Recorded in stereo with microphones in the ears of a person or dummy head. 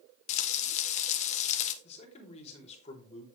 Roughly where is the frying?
Left.